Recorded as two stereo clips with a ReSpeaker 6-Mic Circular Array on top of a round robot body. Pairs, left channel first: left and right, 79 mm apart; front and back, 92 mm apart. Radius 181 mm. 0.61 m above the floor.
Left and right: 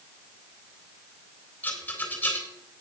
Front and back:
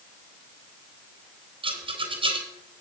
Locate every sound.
1.6 s a rattle: 160° left, 4 m